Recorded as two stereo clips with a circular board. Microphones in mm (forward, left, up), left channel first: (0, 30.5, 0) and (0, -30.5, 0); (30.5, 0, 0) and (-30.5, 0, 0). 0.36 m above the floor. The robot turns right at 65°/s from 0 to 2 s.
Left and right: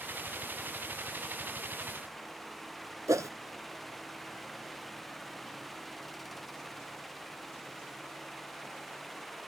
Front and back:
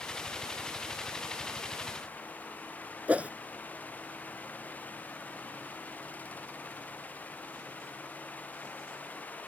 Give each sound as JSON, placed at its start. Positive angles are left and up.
{"t": 3.1, "sound": "a whoosh", "azimuth_deg": -115}